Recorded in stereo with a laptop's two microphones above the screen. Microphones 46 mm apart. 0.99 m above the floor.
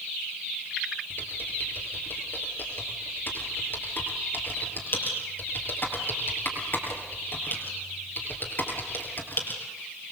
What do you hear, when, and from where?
1.1 s typing on a keyboard: 45° left (ahead or behind), 3.5 m